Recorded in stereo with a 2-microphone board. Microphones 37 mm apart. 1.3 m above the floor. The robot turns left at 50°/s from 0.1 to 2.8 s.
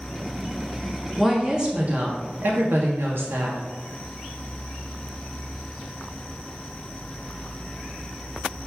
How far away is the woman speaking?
About 0.5 m.